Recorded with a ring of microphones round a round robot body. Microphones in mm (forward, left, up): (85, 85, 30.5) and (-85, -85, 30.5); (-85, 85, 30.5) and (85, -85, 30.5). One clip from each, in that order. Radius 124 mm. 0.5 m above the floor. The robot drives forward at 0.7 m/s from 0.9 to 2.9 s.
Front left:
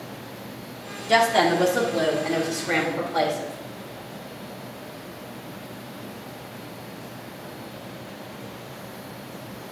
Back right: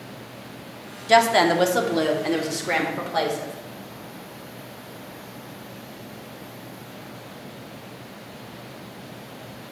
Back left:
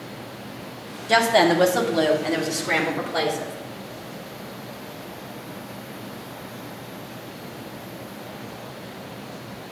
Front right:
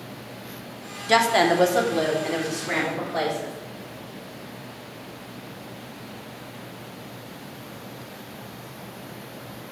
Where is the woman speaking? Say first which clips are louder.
Back right 2 dB, back left 1 dB; 90° right, 0.8 m; by 3.5 s 165° right, 1.5 m.